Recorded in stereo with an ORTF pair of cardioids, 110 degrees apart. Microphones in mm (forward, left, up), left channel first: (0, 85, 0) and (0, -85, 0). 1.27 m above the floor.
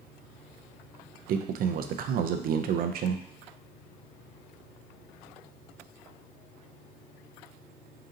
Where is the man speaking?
60° right, 0.5 m.